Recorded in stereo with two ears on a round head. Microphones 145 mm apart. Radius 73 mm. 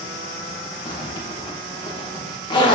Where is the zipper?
30° left (ahead or behind), 0.7 m.